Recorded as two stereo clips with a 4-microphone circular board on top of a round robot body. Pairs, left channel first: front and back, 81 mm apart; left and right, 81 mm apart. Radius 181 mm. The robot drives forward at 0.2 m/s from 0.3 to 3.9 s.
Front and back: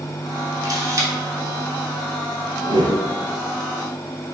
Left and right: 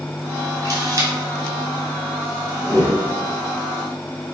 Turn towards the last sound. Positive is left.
turn(degrees=160)